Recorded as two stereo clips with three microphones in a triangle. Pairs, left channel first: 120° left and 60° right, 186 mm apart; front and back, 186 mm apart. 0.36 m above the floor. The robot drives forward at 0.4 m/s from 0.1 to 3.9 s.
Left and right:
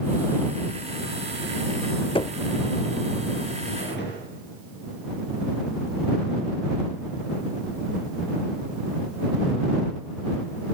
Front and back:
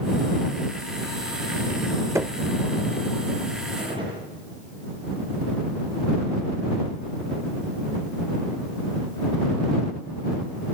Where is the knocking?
125° left, 0.5 m; by 2.4 s 140° left, 0.5 m.